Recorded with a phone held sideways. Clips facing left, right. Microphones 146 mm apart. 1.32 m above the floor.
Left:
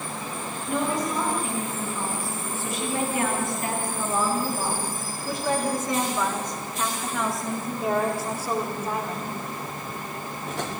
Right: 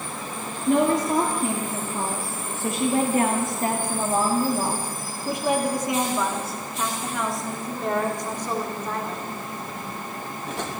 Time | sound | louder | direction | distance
0.7 | a woman speaking | right 7 dB | 70° right (ahead or behind) | 3 m